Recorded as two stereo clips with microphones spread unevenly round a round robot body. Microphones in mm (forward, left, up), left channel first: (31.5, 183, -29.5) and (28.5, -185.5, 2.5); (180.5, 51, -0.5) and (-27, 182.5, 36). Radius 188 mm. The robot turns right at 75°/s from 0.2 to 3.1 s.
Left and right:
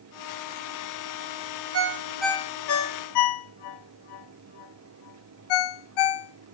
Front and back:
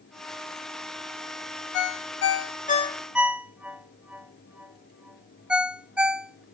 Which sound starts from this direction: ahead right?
A ringtone, at 1.7 s.